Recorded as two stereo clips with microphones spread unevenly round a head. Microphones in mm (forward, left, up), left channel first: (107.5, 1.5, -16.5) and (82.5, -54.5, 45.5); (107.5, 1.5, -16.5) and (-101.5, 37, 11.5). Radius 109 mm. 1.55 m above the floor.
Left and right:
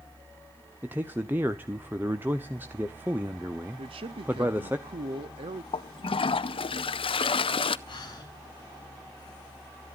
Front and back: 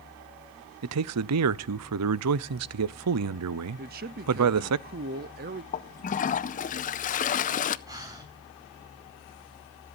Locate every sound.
0.8 s a man speaking: 155° left, 0.5 m
3.8 s a man speaking: 135° right, 0.5 m
5.7 s a toilet flushing: 40° left, 0.5 m
7.9 s breathing: 100° left, 4 m